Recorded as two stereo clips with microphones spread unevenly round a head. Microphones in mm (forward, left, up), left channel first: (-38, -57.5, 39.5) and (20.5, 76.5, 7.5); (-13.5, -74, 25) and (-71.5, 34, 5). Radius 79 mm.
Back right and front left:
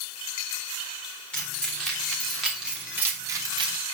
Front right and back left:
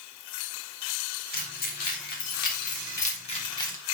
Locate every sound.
1.3 s keys jangling: 30° right, 4 m; by 3.8 s 10° left, 1.2 m